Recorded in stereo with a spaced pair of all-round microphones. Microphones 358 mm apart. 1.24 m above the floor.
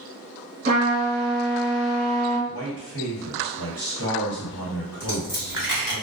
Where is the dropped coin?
60° left (ahead or behind), 1.4 m.